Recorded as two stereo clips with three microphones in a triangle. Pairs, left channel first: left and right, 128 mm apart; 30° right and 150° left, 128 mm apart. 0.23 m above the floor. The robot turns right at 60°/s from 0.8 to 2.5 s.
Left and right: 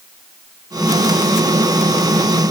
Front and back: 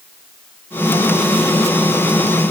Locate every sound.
Only background noise.